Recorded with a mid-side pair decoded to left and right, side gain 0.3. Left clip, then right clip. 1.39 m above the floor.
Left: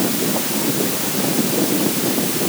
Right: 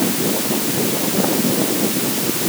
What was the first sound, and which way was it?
Only background noise.